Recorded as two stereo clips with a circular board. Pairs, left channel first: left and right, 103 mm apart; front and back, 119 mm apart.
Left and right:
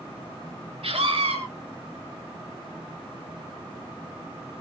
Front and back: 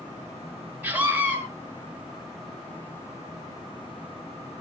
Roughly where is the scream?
Right.